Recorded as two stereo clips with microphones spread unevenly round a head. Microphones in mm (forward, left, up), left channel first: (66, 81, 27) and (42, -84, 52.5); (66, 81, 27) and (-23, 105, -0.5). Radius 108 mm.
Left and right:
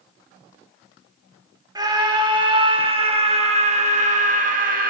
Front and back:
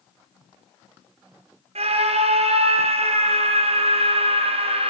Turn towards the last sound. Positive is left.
turn(degrees=-150)